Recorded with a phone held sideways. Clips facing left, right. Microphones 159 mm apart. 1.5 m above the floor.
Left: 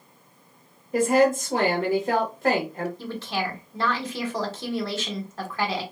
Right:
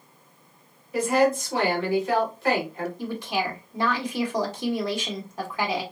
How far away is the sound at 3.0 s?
About 1.1 m.